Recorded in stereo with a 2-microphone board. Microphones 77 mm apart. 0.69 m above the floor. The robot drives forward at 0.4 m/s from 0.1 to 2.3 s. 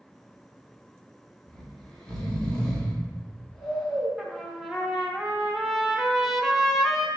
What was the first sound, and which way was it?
Snoring, 10° left (ahead or behind).